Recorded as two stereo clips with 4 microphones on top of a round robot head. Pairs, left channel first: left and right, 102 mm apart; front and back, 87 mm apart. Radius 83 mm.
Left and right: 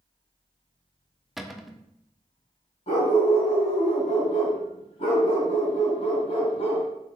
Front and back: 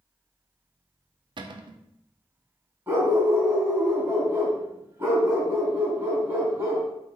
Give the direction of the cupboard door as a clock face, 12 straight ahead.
6 o'clock.